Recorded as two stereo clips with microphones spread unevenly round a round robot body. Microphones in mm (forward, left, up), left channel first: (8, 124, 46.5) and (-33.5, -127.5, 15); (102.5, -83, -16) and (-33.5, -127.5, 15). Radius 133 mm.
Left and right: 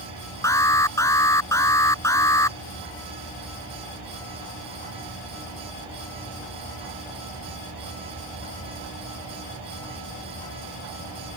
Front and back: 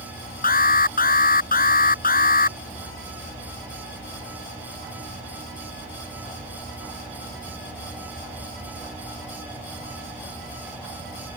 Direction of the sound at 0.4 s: Straight ahead.